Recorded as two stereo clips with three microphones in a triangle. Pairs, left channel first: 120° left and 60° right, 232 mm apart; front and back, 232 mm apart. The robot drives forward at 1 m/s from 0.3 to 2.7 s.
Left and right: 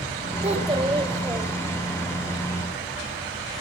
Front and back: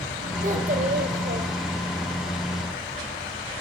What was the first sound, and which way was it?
A child speaking, 125° right.